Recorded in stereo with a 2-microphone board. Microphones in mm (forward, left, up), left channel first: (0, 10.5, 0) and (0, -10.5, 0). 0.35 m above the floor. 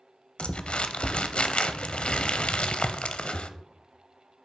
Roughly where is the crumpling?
Left.